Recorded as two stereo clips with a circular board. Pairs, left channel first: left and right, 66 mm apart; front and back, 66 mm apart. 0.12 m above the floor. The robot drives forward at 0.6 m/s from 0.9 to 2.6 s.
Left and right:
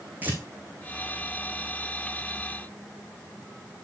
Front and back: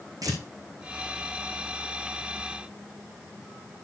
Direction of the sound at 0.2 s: 155° right.